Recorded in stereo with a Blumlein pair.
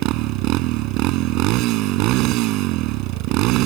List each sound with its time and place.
0.0 s a motorcycle: 40° right